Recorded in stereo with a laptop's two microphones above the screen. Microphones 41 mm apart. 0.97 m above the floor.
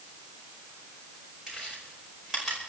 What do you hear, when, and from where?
1.5 s chewing: 10° right (ahead or behind), 5 m